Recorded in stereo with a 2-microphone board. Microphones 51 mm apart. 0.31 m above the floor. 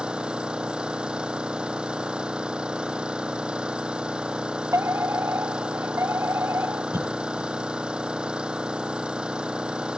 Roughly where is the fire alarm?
Right.